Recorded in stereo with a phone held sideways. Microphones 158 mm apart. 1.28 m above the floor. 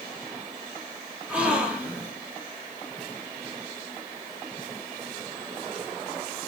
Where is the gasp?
5° right (ahead or behind), 3.5 m.